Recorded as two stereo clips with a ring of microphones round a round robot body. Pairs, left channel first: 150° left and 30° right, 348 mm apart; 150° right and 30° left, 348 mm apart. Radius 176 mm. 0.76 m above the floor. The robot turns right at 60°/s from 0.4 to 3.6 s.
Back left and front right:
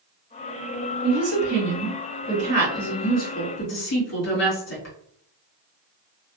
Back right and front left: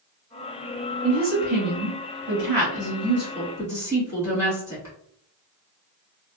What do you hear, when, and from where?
1.0 s a woman speaking: 45° right, 1.8 m; by 5.0 s 110° left, 1.8 m